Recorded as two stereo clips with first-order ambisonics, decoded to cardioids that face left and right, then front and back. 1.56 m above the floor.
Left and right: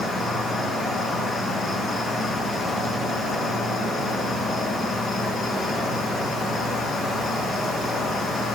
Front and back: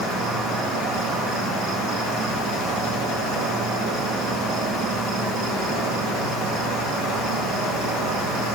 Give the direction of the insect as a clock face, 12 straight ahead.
6 o'clock.